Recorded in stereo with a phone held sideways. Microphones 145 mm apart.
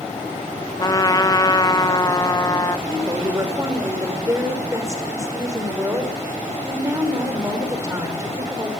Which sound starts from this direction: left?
A trumpet, at 0.8 s.